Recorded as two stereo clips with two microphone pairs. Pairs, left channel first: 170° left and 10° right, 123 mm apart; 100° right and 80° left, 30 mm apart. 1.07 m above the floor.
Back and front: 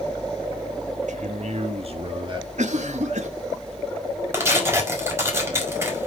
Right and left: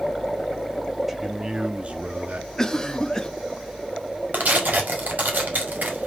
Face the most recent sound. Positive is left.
turn(degrees=60)